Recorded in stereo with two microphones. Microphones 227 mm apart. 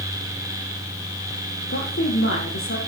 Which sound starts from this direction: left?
A woman speaking, at 1.7 s.